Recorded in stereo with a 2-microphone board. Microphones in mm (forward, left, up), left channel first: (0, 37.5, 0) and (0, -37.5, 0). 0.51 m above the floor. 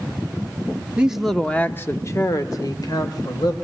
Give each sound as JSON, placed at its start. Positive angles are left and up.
{"t": 1.0, "sound": "a man speaking", "side_deg": -15, "distance_m": 1.0}